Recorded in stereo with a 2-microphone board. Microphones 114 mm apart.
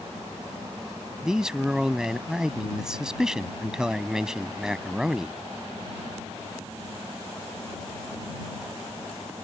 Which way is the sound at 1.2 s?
5° right (ahead or behind).